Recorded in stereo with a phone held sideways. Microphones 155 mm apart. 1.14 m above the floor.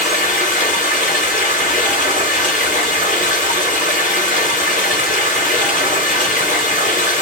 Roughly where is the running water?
Left.